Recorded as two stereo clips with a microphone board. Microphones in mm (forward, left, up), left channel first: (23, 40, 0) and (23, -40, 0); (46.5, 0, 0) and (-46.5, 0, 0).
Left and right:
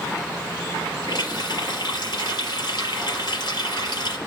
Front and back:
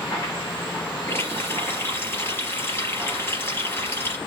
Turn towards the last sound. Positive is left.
turn(degrees=65)